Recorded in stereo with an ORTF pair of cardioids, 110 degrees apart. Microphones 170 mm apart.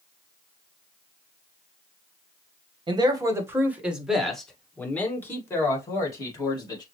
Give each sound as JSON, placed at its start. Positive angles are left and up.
{"t": 2.9, "sound": "a man speaking", "azimuth_deg": -25, "distance_m": 1.4}